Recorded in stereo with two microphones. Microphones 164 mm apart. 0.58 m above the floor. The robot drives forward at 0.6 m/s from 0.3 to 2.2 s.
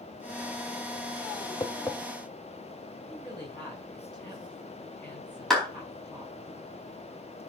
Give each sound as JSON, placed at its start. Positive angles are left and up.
{"t": 1.6, "sound": "tapping", "side_deg": 25, "distance_m": 0.7}
{"t": 3.1, "sound": "a woman speaking", "side_deg": 10, "distance_m": 4.5}
{"t": 5.5, "sound": "a clap", "side_deg": 0, "distance_m": 4.0}